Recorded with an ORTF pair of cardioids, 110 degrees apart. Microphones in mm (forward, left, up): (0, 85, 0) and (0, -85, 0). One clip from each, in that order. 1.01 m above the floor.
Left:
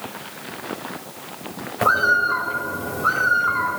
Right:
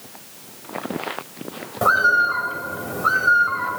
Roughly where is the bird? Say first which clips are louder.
Right 1 dB; ahead.